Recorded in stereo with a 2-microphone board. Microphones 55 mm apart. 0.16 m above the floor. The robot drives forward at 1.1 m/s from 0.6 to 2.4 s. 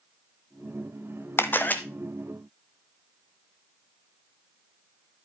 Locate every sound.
1.4 s a camera shutter: 45° left (ahead or behind), 1.0 m; by 1.8 s 30° left (ahead or behind), 1.3 m